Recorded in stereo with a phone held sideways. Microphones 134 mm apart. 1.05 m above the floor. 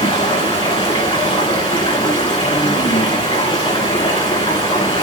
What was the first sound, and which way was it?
Running water, 45° left (ahead or behind).